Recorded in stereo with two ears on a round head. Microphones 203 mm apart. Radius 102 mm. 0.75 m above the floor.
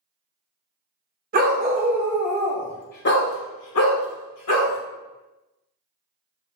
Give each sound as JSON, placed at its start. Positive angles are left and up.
{"t": 1.3, "sound": "a dog barking", "side_deg": -40, "distance_m": 0.8}